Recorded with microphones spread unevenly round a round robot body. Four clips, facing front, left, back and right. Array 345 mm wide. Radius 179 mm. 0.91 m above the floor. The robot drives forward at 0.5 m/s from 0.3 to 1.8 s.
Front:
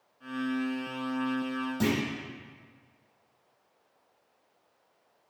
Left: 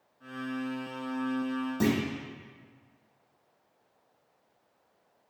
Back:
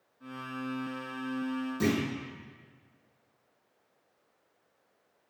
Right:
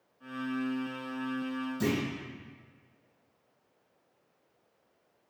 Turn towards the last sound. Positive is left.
turn(degrees=80)